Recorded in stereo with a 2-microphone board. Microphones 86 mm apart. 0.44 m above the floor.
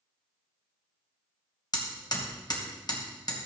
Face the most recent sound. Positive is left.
turn(degrees=50)  # may be behind; listen again after turning